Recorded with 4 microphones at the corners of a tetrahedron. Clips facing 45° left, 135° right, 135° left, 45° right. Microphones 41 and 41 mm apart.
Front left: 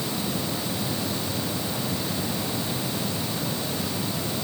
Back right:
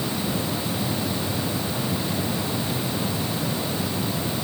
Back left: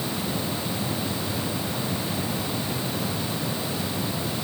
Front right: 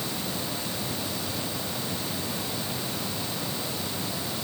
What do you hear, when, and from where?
Only background noise.